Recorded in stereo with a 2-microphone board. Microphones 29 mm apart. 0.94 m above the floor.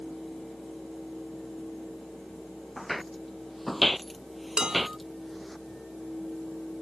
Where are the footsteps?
Centre (ahead or behind).